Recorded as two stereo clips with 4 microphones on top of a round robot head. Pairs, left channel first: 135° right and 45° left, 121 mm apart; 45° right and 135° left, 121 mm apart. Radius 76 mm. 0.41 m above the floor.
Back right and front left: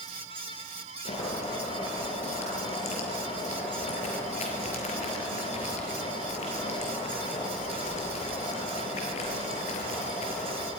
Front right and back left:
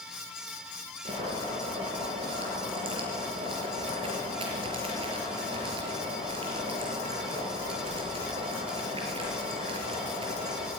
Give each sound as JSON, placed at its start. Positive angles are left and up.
{"t": 1.1, "sound": "boiling", "azimuth_deg": -175, "distance_m": 5.0}